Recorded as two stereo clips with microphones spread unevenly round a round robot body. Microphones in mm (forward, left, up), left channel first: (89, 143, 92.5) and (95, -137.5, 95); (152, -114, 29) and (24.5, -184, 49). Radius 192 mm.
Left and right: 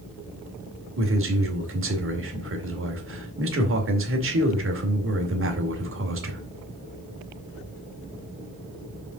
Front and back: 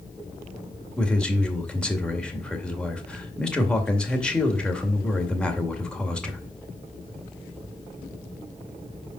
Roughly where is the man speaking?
Ahead right.